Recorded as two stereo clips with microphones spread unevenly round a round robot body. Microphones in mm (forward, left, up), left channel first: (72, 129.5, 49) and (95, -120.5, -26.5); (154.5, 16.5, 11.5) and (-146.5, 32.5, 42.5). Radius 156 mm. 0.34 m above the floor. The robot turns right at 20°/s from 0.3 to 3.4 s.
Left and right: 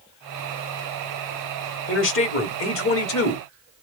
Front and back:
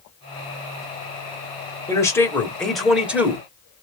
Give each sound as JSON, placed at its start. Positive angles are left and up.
{"t": 1.9, "sound": "a man speaking", "azimuth_deg": 60, "distance_m": 1.2}